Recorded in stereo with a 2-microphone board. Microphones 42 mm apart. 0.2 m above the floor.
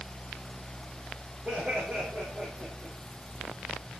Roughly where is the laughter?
Right.